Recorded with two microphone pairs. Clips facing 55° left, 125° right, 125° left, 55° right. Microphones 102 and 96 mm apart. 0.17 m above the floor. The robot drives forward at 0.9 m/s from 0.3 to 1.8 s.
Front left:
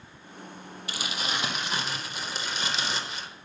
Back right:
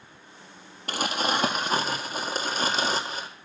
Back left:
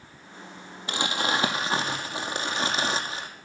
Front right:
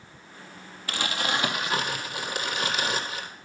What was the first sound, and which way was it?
Crumpling, 165° right.